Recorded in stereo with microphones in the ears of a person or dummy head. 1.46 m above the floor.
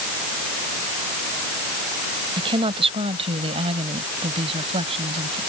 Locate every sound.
2.4 s a woman speaking: 25° right (ahead or behind); by 5.4 s 30° right (ahead or behind)